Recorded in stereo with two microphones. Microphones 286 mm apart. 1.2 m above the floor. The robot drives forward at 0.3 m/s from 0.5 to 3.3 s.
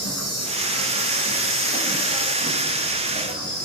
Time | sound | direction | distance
0.0 | an insect | 60° right (ahead or behind) | 1.0 m